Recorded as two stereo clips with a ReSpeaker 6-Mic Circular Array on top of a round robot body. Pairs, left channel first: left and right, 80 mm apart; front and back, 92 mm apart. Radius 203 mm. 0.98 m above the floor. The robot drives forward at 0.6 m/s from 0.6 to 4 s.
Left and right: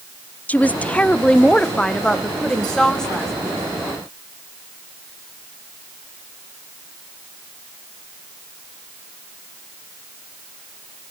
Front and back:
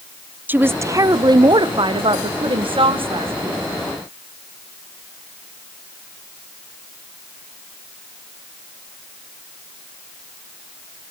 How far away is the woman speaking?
About 0.8 m.